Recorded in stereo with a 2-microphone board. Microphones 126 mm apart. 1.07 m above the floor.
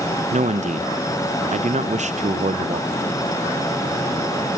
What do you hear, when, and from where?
0.3 s a man speaking: 65° right (ahead or behind), 0.5 m